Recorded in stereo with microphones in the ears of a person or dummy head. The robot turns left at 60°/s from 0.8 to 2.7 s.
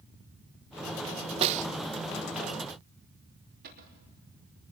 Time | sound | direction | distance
1.4 | a snare drum | 30° right (ahead or behind) | 0.6 m
3.6 | a cupboard door | 50° right (ahead or behind) | 4 m